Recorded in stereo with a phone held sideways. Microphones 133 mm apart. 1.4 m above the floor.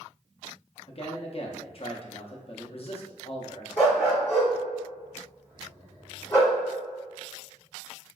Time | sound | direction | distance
0.9 | a man speaking | 45° left (ahead or behind) | 0.5 m
3.8 | a dog barking | 25° left (ahead or behind) | 1.9 m